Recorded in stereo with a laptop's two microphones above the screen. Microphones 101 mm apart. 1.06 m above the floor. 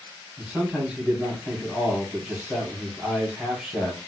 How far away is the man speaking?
About 1.3 m.